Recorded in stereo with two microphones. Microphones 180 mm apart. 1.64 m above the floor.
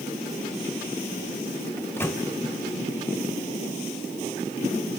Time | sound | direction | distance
1.8 | a microwave | 15° left (ahead or behind) | 0.8 m